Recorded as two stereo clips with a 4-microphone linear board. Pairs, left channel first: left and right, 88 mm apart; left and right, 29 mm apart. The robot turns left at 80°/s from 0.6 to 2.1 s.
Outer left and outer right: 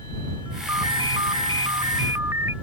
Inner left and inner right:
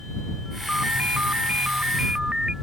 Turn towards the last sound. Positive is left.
turn(degrees=-150)